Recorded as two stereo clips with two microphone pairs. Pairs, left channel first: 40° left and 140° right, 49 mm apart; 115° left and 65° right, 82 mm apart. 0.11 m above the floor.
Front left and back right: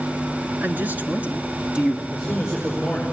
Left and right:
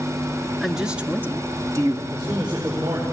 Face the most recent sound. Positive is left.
turn(degrees=-50)